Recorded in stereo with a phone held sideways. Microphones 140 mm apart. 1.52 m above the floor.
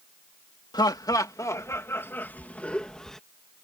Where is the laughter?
30° left (ahead or behind); by 3.2 s 5° left (ahead or behind).